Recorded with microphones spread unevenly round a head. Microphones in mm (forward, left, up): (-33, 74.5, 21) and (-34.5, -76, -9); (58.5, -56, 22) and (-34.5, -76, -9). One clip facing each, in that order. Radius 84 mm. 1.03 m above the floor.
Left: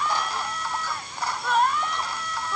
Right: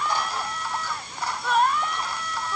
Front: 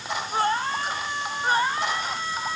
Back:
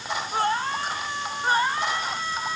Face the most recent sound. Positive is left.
No sound to turn to.